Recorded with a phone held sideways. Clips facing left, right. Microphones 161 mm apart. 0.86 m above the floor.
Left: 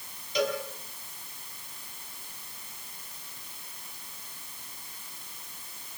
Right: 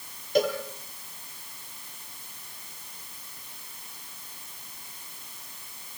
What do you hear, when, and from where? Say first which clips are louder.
0.3 s a cowbell: right 4 dB; 50° right (ahead or behind), 7 m